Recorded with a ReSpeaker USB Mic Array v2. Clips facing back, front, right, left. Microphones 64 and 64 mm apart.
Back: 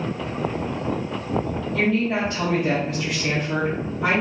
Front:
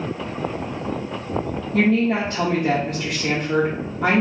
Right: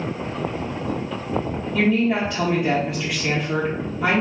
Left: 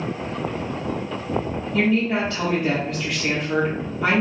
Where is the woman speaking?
5° right, 0.8 m.